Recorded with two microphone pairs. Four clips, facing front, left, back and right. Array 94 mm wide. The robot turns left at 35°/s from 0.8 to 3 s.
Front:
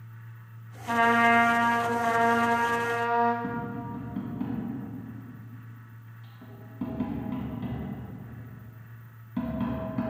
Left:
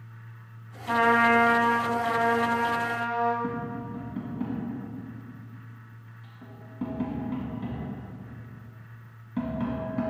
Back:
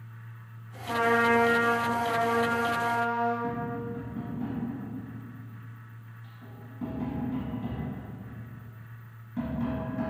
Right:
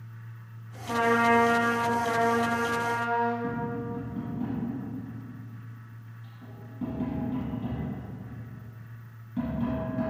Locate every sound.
0.9 s a trumpet: 50° left, 0.6 m; by 3.3 s 25° right, 0.6 m
3.4 s tapping: 50° left, 1.9 m